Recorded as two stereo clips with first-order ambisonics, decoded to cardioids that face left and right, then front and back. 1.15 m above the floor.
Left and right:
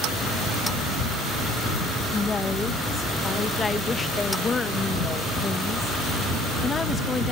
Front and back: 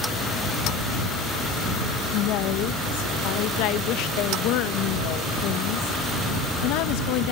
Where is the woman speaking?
15° left.